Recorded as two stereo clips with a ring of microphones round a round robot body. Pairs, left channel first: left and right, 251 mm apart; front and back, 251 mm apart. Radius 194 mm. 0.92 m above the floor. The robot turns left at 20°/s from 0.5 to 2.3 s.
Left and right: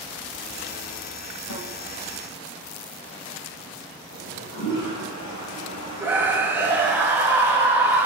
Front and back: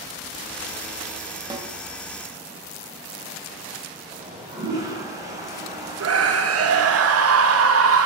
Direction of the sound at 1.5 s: 105° left.